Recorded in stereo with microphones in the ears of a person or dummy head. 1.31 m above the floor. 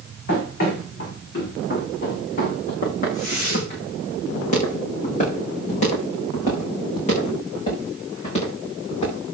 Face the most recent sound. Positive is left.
turn(degrees=35)  # may be behind; listen again after turning